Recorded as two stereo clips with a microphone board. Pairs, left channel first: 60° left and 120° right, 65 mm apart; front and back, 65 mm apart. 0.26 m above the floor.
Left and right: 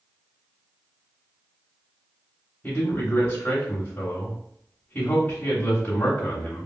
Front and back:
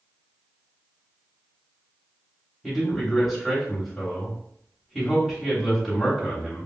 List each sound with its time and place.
2.6 s a man speaking: 85° left, 1.0 m